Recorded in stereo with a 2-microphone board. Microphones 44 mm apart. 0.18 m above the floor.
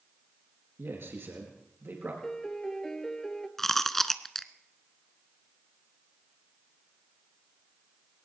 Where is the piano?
10° left (ahead or behind), 1.0 m.